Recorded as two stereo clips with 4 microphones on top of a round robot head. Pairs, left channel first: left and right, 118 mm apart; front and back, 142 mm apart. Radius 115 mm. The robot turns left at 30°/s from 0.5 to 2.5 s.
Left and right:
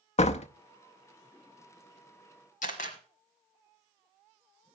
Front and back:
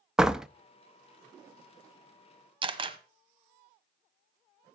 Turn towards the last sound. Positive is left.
turn(degrees=130)